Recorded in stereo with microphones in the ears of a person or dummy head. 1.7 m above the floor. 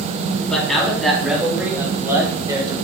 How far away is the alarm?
I don't hear an alarm.